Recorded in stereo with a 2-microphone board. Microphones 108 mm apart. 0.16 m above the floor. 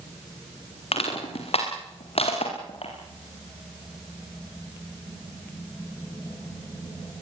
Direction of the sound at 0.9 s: 65° left (ahead or behind).